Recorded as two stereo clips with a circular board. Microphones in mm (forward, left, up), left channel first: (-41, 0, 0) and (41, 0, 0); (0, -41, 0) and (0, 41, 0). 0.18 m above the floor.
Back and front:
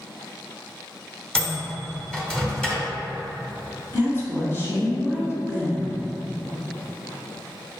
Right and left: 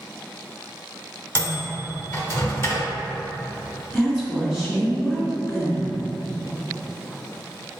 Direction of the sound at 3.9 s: 170° left.